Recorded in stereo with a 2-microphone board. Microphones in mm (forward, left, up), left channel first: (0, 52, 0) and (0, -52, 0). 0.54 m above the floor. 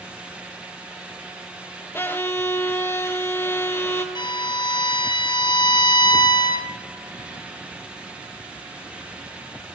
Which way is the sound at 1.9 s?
20° left (ahead or behind).